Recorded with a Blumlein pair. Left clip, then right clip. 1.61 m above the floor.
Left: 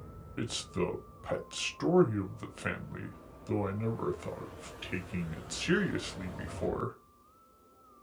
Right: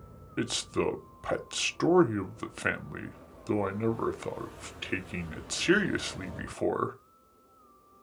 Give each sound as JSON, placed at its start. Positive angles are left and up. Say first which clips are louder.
{"t": 0.4, "sound": "a man speaking", "louder": "right 5 dB", "azimuth_deg": -20, "distance_m": 0.5}